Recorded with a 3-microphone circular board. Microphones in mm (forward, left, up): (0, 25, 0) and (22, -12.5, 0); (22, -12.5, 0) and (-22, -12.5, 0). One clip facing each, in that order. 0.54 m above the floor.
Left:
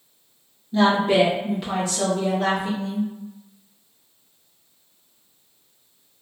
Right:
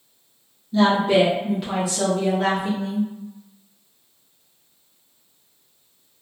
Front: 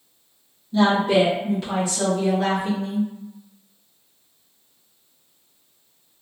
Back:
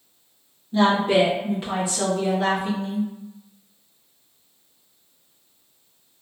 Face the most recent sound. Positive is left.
turn(degrees=-80)